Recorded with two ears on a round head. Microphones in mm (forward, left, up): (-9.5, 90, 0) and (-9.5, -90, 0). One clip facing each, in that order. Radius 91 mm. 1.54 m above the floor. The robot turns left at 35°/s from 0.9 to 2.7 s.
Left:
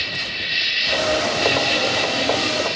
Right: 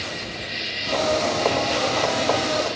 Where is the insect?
100° left; by 2.8 s 35° left.